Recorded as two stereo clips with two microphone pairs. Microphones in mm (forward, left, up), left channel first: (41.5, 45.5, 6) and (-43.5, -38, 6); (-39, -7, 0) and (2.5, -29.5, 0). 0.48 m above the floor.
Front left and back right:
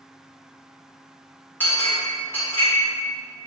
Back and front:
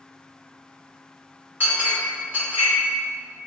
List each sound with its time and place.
1.6 s a clink: 20° right, 1.0 m